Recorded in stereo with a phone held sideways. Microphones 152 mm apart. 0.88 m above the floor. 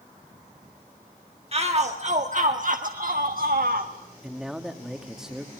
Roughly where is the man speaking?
Centre.